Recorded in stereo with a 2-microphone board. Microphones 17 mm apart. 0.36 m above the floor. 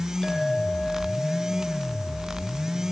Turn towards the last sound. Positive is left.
turn(degrees=40)  # may be behind; listen again after turning